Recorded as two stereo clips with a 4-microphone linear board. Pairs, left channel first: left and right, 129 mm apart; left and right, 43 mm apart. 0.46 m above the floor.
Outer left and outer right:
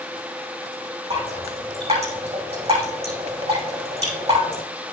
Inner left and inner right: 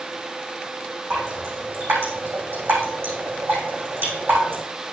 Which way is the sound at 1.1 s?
55° right (ahead or behind).